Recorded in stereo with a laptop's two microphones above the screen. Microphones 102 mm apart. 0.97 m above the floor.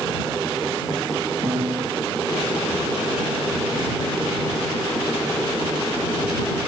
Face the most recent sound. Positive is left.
turn(degrees=-70)  # may be behind; listen again after turning